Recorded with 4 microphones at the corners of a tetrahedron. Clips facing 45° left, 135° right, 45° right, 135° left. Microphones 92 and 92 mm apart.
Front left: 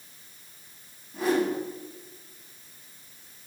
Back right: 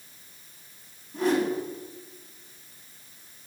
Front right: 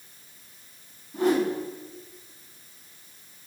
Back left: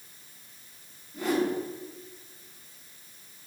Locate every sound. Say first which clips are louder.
1.1 s a whoosh: back right 1 dB, front right 4 dB; 40° right, 5.5 m